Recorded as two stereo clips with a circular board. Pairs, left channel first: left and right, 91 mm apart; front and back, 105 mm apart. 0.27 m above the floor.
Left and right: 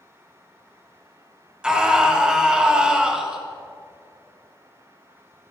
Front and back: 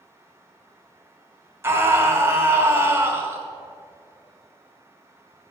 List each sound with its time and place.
1.6 s a scream: 155° right, 1.7 m